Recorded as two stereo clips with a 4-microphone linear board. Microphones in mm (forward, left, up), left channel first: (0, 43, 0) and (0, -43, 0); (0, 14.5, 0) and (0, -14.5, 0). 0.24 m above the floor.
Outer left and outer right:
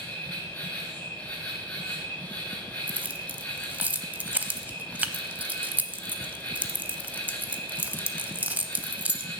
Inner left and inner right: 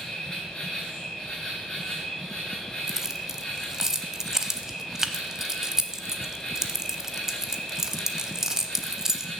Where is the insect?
20° left (ahead or behind), 5.5 m.